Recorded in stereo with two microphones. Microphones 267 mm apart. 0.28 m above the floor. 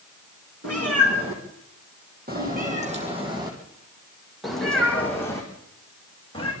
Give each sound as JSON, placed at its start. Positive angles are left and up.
{"t": 0.6, "sound": "a cat meowing", "side_deg": -60, "distance_m": 5.0}